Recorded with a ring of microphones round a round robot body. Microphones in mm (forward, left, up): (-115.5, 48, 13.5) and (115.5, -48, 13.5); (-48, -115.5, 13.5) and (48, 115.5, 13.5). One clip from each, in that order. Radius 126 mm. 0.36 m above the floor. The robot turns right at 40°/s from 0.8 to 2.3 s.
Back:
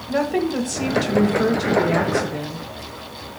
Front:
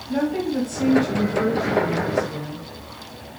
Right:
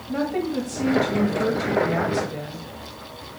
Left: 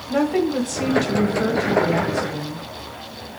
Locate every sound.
0.1 s a woman speaking: 120° left, 1.4 m; by 2.6 s straight behind, 1.4 m